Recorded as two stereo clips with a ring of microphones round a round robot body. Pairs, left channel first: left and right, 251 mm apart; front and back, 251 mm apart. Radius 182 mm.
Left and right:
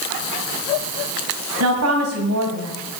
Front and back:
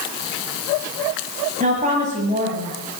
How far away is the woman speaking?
About 1.9 m.